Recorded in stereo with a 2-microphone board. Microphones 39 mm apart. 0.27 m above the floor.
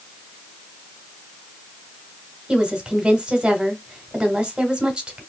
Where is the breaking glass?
I don't hear breaking glass.